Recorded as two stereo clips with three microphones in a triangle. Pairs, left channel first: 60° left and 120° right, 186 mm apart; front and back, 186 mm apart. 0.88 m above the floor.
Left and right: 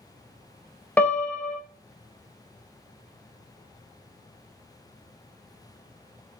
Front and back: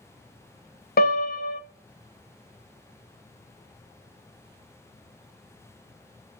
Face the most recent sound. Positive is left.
turn(degrees=-20)